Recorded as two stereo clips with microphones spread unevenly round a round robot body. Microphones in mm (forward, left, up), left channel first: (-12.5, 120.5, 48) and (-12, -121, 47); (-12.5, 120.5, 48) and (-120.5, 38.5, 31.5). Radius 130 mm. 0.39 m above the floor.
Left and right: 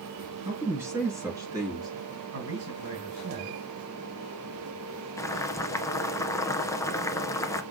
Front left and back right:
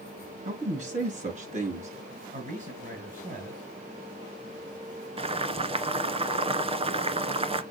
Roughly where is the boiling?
Behind.